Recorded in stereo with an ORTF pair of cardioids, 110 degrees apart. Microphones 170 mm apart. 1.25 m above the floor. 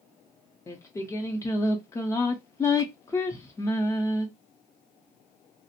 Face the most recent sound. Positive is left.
turn(degrees=15)